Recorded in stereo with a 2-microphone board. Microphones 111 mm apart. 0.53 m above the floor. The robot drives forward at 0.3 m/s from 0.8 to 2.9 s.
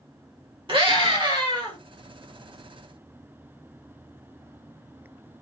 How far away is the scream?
About 1.7 m.